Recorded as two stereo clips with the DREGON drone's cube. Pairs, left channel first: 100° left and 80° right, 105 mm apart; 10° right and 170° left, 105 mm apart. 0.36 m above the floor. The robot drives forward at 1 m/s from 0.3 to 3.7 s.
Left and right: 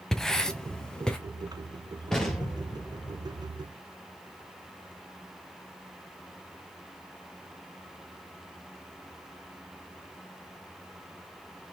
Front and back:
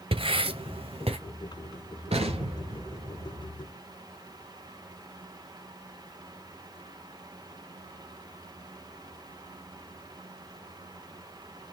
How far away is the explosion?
About 3.5 m.